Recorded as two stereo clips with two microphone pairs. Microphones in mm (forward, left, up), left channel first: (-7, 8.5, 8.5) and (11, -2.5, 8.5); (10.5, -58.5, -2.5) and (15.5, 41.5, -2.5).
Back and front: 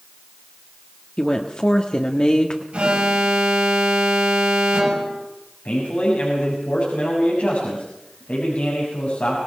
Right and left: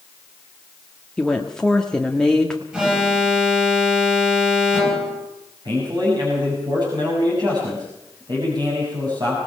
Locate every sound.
1.2 s a woman speaking: 175° right, 1.5 m
2.7 s an alarm: 5° left, 5 m
5.7 s a man speaking: 130° left, 6.5 m